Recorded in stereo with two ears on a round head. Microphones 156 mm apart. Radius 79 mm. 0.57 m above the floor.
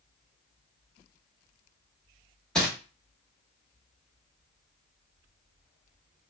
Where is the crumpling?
5° left (ahead or behind), 1.1 m.